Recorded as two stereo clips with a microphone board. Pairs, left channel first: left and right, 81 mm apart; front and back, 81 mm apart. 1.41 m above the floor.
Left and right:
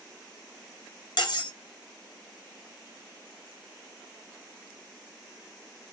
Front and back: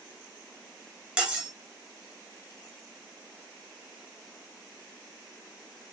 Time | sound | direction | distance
1.2 | cutlery clinking | 105° left | 1.3 m